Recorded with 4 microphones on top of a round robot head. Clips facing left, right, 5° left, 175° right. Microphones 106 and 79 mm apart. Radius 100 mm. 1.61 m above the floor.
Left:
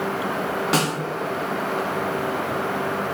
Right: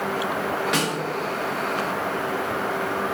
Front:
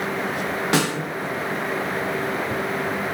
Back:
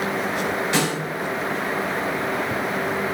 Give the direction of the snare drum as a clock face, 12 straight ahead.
11 o'clock.